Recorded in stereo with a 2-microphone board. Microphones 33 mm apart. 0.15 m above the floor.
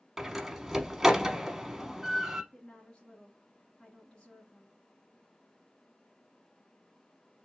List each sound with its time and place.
0.2 s a door slam: 15° right (ahead or behind), 0.8 m
2.5 s a woman speaking: 30° left (ahead or behind), 1.3 m